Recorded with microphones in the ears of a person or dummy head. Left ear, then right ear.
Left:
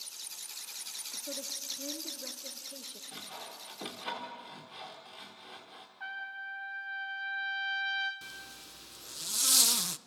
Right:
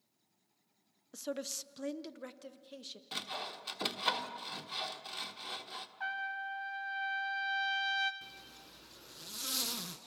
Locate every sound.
1.1 s a woman speaking: 60° right (ahead or behind), 0.7 m; by 3.0 s centre (ahead or behind), 1.5 m
3.1 s sawing: 30° right (ahead or behind), 1.5 m
6.0 s a trumpet: 20° right (ahead or behind), 1.0 m
8.2 s a zipper: 25° left (ahead or behind), 0.6 m